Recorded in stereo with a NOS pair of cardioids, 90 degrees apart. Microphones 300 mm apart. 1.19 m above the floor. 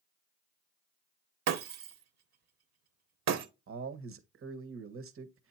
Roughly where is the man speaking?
Ahead right.